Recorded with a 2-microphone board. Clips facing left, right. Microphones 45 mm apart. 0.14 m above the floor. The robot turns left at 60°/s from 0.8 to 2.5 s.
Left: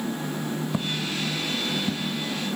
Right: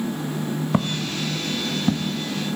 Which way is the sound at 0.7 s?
45° right (ahead or behind).